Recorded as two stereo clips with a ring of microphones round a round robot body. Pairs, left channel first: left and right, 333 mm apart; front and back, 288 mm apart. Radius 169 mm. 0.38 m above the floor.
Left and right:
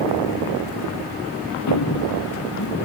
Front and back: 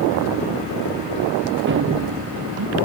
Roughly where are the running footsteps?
Behind left.